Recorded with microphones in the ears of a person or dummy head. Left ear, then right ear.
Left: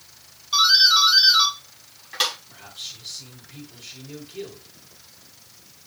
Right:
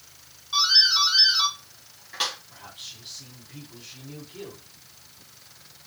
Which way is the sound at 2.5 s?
15° left (ahead or behind).